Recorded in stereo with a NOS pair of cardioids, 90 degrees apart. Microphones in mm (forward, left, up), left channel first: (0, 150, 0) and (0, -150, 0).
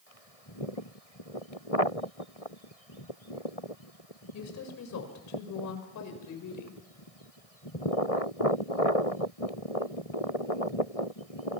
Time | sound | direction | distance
4.3 | a woman speaking | 60° left | 7 m